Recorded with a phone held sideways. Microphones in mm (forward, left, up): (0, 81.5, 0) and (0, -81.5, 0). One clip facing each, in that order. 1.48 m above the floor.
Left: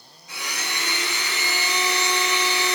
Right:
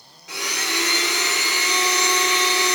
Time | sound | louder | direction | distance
0.3 | a blender | right 5 dB | 80° right | 0.6 m